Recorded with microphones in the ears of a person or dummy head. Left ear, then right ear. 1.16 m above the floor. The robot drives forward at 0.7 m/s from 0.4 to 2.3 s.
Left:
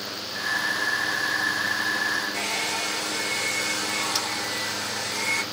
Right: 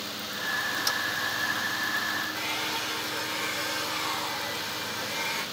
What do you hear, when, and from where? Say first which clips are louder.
2.3 s a hair dryer: left 3 dB; 75° left (ahead or behind), 1.4 m